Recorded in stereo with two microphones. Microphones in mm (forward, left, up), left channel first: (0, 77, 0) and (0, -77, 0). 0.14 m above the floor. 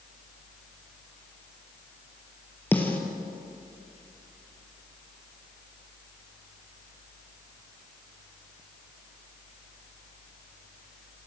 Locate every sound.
2.7 s a snare drum: 10° left (ahead or behind), 3 m